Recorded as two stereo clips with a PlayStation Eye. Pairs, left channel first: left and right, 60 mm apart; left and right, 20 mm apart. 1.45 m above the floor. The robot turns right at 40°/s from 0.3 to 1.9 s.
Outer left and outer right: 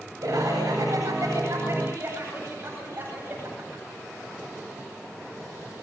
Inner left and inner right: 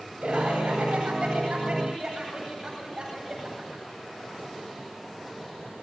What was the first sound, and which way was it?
Laughter, 100° right.